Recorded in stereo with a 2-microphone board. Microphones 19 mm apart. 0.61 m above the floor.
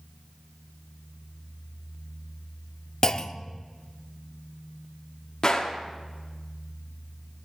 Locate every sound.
3.0 s a clunk: 30° left (ahead or behind), 0.5 m
5.4 s a gunshot: 40° left (ahead or behind), 1.4 m